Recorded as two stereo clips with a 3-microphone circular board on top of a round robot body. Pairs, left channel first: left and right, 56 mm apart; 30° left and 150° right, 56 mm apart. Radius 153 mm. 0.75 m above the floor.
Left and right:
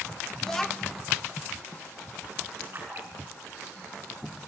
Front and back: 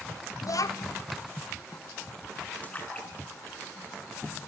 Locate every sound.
0.4 s a child speaking: 10° left, 1.0 m
2.6 s a splash: 35° right, 6.5 m